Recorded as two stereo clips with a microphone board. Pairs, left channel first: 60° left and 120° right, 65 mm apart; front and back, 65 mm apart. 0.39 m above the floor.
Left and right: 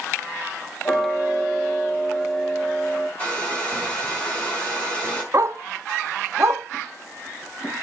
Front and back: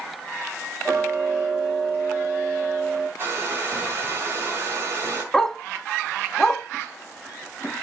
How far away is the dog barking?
About 0.9 m.